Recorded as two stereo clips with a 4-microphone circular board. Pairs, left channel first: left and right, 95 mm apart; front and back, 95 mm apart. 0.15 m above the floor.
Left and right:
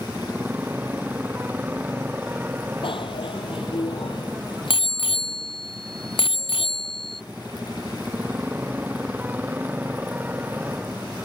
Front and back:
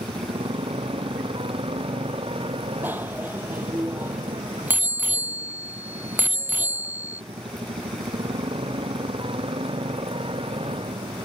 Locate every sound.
0.0 s a motorcycle: 160° right
2.8 s a bicycle bell: 110° left